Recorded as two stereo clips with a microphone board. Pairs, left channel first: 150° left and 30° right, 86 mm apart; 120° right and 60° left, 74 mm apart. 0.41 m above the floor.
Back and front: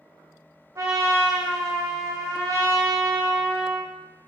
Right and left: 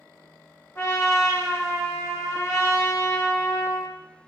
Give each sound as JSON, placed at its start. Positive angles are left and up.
{"t": 0.8, "sound": "a trumpet", "azimuth_deg": -75, "distance_m": 0.8}